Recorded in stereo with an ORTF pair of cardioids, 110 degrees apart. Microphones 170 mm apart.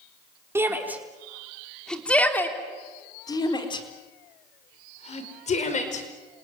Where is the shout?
15° right, 4 m; by 6.0 s 45° left, 5.5 m.